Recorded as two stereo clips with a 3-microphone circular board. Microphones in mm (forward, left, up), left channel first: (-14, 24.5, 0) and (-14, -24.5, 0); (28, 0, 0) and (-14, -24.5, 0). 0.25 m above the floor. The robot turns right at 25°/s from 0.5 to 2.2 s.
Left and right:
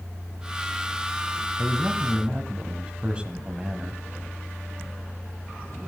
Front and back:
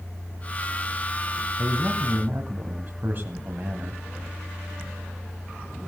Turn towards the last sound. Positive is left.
turn(degrees=-145)